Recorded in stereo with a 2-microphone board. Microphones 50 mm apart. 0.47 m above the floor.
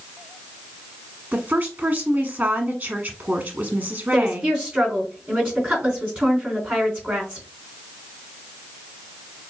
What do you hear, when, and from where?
1.3 s a woman speaking: 25° right (ahead or behind), 1.1 m
4.1 s a woman speaking: 25° right (ahead or behind), 4 m